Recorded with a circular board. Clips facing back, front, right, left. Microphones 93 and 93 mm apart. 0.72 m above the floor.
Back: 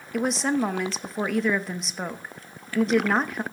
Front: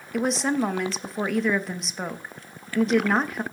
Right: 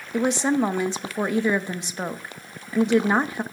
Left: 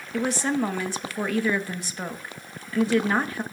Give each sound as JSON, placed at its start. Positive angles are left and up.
{"t": 0.1, "sound": "a woman speaking", "azimuth_deg": -90, "distance_m": 0.8}